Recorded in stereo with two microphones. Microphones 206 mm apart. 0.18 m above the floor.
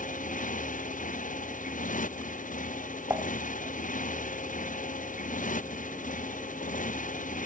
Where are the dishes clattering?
15° right (ahead or behind).